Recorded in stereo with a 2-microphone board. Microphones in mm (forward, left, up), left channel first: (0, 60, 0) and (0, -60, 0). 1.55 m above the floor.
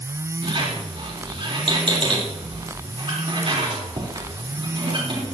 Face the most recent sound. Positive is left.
turn(degrees=-45)  # may be behind; listen again after turning